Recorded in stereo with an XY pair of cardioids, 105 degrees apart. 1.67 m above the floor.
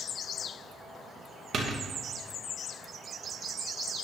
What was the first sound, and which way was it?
A door slam, 55° right.